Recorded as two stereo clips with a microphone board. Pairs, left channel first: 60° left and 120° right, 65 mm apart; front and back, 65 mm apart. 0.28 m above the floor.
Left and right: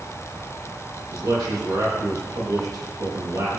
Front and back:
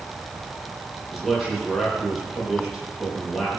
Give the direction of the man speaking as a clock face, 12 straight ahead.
3 o'clock.